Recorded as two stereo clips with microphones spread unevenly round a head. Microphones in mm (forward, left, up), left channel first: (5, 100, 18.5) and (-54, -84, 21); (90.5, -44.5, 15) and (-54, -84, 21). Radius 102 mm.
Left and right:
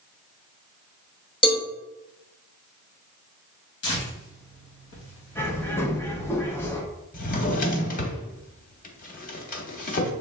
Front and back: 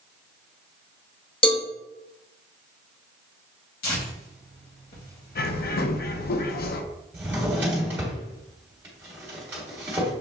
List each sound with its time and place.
1.4 s a cowbell: 25° left, 0.7 m
3.8 s tearing paper: 40° left, 1.7 m
5.3 s a bird: 10° right, 0.5 m
7.1 s a drawer: 115° left, 0.9 m